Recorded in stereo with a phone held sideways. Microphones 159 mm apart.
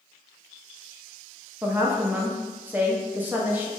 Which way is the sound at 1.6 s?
10° right (ahead or behind).